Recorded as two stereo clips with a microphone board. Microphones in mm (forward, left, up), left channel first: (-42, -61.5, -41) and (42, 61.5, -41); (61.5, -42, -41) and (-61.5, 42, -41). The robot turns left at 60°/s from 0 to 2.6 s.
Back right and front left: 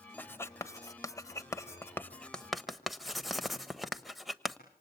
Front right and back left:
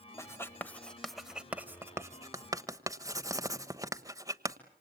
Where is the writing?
70° right, 1.1 m; by 4.6 s 145° left, 1.1 m.